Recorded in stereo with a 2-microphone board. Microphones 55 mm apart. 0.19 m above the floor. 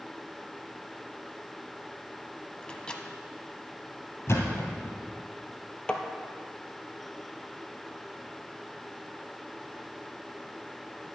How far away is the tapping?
About 1.0 m.